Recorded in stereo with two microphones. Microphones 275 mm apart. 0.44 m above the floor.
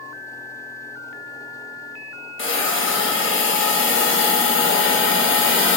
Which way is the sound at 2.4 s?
50° left (ahead or behind).